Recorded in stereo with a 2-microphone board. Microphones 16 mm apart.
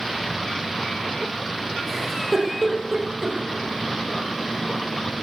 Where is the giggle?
10° right (ahead or behind), 3 m.